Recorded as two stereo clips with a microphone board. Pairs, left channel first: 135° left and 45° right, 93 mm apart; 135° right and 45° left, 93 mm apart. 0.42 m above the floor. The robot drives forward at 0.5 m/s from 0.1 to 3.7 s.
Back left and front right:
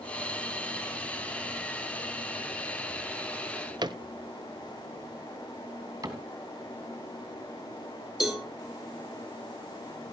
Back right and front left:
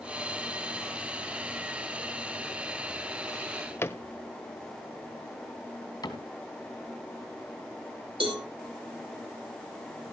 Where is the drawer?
65° right, 0.9 m; by 4.0 s 75° right, 0.8 m.